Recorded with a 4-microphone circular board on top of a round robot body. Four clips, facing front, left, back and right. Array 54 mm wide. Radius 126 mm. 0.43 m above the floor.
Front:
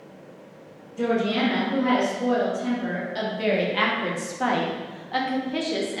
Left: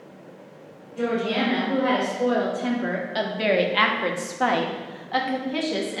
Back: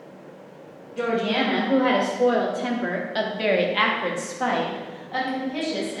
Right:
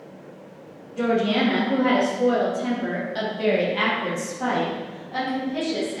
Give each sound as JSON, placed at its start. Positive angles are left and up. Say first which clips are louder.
{"t": 1.0, "sound": "a woman speaking", "louder": "right 3 dB, even", "azimuth_deg": -170, "distance_m": 2.0}